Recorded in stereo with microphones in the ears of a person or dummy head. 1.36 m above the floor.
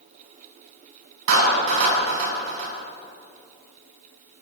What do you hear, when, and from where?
1.3 s a clap: 80° right, 9.5 m